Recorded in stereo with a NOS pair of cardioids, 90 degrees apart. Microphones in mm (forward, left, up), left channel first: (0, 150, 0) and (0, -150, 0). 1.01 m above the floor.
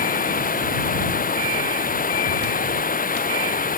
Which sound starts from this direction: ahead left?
Running water, at 0.0 s.